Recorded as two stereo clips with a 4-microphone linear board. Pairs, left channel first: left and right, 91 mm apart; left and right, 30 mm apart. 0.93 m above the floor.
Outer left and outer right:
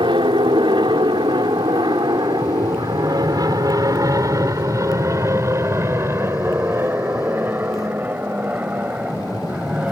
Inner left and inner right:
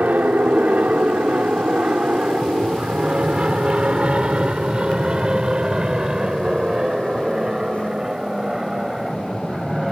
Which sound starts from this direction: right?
An aircraft, at 0.0 s.